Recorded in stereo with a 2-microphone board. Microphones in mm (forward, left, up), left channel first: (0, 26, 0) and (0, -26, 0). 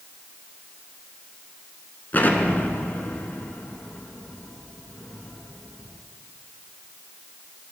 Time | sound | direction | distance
2.1 | an explosion | 35° left (ahead or behind) | 1.1 m